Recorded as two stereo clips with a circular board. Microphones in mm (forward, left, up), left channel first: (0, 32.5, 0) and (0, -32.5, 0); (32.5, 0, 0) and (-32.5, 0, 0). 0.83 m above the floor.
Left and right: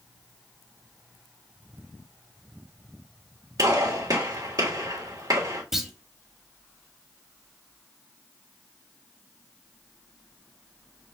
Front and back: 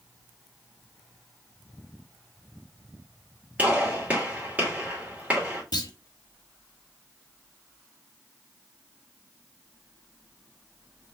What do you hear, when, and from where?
3.6 s a gunshot: 110° right, 2.5 m
5.7 s a clunk: 5° right, 1.1 m